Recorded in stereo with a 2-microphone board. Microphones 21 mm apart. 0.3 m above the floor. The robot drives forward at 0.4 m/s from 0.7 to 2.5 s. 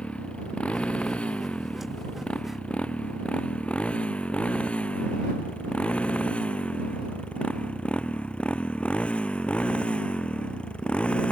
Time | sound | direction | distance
0.0 | a motorcycle | 80° left | ?